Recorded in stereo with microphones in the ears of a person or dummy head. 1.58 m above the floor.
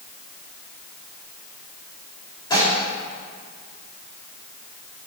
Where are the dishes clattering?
30° left (ahead or behind), 2.5 m.